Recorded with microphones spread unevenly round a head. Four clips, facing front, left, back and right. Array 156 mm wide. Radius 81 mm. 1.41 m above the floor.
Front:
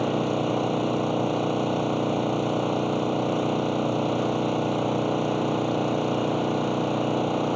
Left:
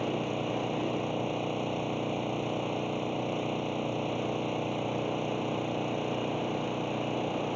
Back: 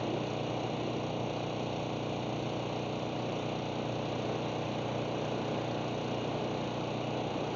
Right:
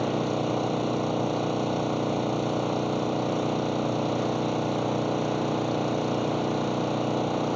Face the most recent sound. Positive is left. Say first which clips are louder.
# right 5 dB, front 10 dB
turn(degrees=-20)